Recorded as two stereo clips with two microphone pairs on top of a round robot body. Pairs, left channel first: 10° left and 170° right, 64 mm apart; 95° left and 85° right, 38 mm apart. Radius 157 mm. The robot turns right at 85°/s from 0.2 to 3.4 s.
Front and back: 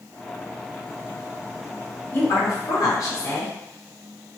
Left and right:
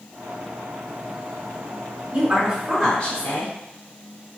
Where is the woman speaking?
50° right, 1.7 m; by 3.5 s 60° left, 1.7 m.